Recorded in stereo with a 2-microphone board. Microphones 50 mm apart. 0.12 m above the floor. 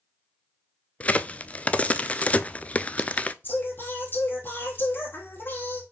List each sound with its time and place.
1.0 s a crack: 30° left (ahead or behind), 0.5 m
3.4 s singing: 45° left (ahead or behind), 3 m